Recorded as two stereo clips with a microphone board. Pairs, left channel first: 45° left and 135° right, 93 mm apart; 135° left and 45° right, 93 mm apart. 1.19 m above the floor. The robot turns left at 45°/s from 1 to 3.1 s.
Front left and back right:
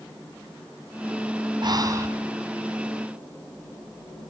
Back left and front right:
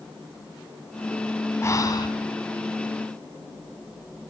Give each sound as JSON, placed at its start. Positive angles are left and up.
{"t": 1.6, "sound": "breathing", "azimuth_deg": -165, "distance_m": 2.5}